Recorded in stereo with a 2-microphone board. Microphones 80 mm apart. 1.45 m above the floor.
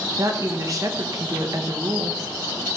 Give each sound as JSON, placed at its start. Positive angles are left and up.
{"t": 0.2, "sound": "a woman speaking", "side_deg": -45, "distance_m": 1.3}